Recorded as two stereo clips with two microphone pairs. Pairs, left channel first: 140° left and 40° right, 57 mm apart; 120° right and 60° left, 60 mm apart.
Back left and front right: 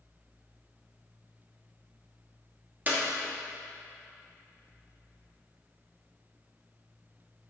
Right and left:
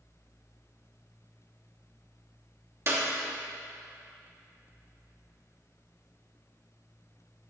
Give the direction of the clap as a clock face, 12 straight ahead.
11 o'clock.